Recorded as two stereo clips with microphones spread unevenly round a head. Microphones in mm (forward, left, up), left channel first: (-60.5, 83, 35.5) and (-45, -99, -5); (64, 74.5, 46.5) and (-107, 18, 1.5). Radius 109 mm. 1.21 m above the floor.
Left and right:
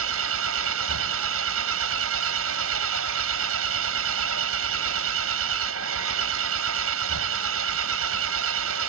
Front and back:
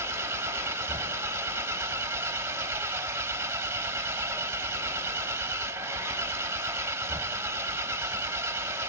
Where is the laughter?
No laughter in this recording.